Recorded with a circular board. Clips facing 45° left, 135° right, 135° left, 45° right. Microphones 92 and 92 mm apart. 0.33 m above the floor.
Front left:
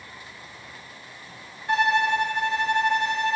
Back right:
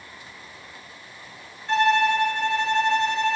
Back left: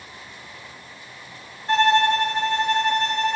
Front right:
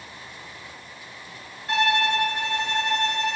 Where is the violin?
115° left, 0.8 m.